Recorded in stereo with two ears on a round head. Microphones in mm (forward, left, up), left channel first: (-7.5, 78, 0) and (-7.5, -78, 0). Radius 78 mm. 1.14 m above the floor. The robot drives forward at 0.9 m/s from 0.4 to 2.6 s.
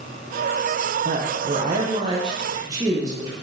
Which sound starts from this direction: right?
A woman speaking, at 1.1 s.